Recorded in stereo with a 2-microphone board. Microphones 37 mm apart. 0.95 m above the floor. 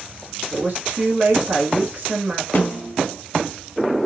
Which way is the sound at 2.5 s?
60° left (ahead or behind).